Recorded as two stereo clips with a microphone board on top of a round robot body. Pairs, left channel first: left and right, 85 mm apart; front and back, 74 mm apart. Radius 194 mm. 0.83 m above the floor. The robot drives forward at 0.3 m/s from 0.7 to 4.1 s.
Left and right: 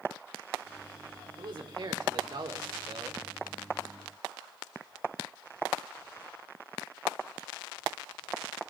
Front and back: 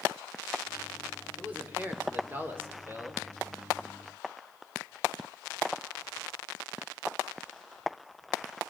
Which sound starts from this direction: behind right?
A man speaking, at 1.4 s.